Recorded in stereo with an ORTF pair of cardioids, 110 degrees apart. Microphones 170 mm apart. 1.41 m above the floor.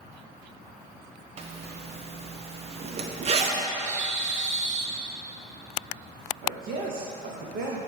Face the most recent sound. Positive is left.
turn(degrees=-60)